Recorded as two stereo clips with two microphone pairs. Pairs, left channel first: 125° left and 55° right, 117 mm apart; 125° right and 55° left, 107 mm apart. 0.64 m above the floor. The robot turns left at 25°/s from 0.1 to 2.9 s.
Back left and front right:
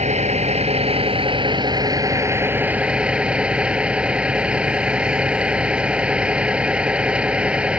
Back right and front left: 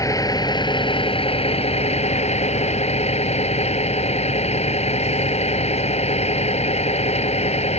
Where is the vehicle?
65° right; by 7.8 s 135° right.